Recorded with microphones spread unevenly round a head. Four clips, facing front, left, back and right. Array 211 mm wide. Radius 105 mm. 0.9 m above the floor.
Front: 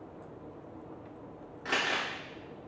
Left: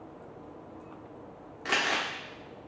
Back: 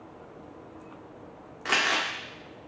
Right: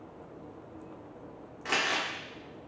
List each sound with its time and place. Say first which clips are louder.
1.6 s crumpling: left 1 dB, back 5 dB; 135° left, 0.7 m